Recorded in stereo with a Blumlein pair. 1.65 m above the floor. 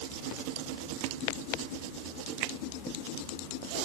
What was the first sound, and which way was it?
Only background noise.